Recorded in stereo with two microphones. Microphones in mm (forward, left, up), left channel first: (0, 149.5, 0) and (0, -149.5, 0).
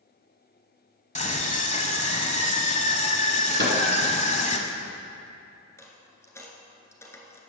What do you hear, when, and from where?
1.1 s a scream: 25° left (ahead or behind), 1.1 m
3.6 s a microwave: 40° right (ahead or behind), 1.6 m
5.8 s a dropped coin: 10° left (ahead or behind), 1.2 m